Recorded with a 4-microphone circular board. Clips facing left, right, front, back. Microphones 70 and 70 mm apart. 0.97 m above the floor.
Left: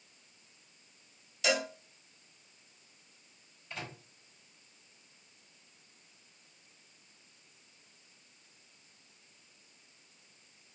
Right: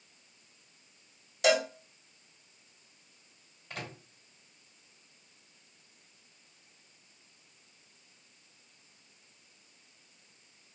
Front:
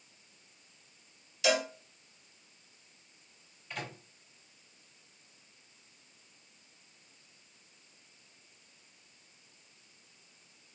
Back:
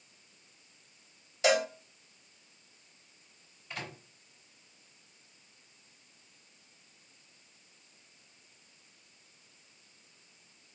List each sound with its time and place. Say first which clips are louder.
1.4 s a cowbell: right 5 dB, back 3 dB; 125° right, 2 m
3.7 s a microwave: right 1 dB, front 1 dB; 95° right, 3 m